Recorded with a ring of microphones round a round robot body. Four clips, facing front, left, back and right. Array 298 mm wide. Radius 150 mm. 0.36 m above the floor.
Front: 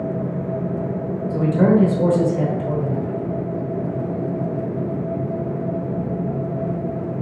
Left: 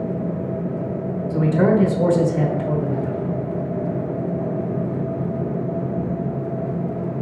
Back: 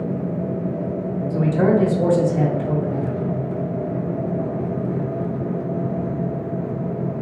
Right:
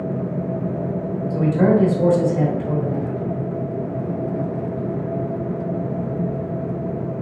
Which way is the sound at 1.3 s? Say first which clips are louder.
Even, front 1 dB; 85° left.